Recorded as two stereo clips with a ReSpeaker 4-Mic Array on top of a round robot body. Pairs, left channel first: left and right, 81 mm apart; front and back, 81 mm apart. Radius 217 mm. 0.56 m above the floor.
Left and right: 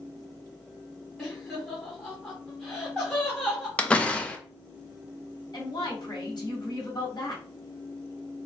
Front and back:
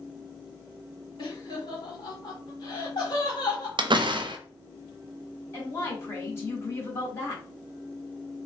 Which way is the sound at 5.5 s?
60° left.